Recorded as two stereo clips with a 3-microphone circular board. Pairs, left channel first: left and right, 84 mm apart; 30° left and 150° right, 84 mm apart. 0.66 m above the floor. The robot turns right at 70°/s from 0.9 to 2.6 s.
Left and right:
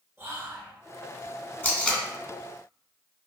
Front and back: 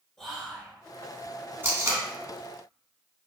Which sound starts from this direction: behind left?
Tape being pulled, at 1.6 s.